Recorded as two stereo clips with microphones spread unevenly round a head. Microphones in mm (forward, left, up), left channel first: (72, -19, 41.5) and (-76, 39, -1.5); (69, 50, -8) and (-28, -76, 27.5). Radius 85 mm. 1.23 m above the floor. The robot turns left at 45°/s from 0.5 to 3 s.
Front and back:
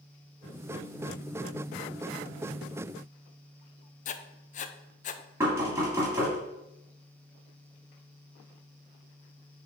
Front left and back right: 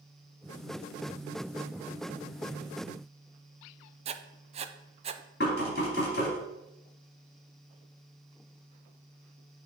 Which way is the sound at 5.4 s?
85° left.